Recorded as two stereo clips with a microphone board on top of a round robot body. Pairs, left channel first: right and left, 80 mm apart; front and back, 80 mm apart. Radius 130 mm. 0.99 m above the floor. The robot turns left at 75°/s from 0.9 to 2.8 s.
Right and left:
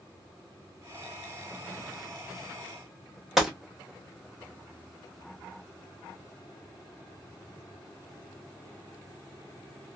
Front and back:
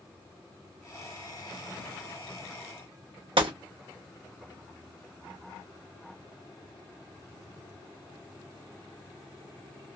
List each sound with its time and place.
3.4 s a gunshot: 175° left, 0.9 m